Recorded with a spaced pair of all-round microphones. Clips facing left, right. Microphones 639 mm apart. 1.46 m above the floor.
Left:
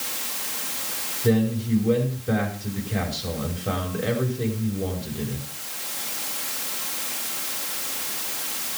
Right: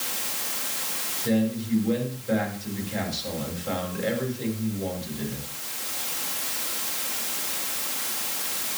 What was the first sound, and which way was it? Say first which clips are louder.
A man speaking: left 3 dB; 65° left (ahead or behind).